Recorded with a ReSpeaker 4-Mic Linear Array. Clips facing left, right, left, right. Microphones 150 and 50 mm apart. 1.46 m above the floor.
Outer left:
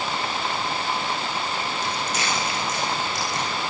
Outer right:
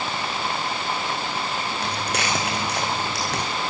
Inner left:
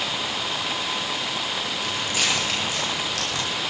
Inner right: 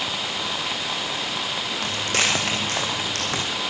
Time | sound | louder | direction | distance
1.8 | footsteps | outer right 1 dB, inner right 3 dB | 65° right (ahead or behind) | 5.5 m